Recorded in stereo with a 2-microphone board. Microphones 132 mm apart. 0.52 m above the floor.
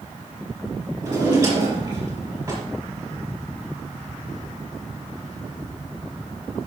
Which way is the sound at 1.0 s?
20° right (ahead or behind).